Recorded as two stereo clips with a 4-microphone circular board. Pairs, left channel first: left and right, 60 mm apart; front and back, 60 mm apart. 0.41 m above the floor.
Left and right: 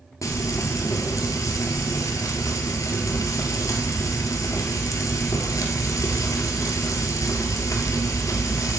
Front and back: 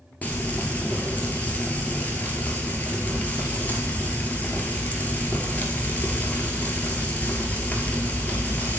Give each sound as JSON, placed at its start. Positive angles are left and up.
{"t": 0.2, "sound": "frying", "azimuth_deg": 65, "distance_m": 1.3}